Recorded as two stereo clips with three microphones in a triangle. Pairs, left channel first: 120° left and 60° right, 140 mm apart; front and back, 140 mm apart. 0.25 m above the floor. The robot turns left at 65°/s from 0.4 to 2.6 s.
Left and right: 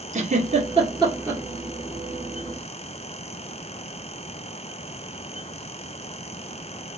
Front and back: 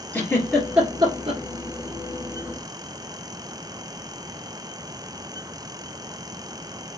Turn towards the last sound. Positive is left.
turn(degrees=140)